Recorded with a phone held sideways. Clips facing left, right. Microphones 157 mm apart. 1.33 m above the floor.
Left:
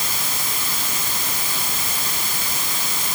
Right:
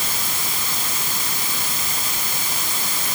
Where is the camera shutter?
No camera shutter in this recording.